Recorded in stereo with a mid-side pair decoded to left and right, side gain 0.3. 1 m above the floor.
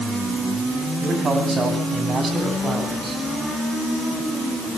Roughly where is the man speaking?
Ahead right.